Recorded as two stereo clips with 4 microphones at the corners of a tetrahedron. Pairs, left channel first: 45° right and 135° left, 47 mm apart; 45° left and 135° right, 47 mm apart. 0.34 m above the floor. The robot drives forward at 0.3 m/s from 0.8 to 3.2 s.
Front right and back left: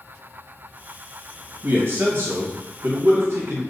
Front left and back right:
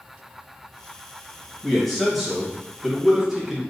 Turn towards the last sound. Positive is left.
turn(degrees=145)